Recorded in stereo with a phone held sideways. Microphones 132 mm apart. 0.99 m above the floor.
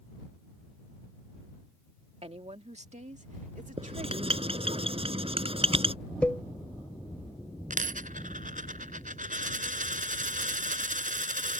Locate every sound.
2.2 s a woman speaking: 50° right (ahead or behind); by 4.8 s 80° right
3.8 s writing: 45° right (ahead or behind)
6.2 s a cowbell: 10° left (ahead or behind)
7.7 s a dropped coin: 80° right